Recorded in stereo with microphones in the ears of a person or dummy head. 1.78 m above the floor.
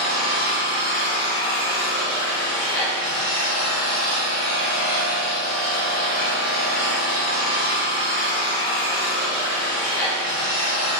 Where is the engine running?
10° left (ahead or behind), 1.5 m.